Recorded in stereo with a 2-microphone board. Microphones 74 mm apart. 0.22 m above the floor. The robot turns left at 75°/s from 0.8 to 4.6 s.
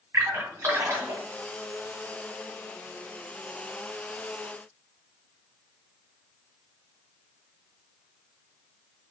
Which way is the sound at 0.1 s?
35° right (ahead or behind).